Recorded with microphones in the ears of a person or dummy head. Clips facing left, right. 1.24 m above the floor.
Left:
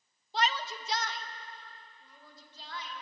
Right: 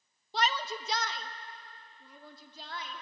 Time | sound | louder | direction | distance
0.3 | a shout | even | 85° right | 1.0 m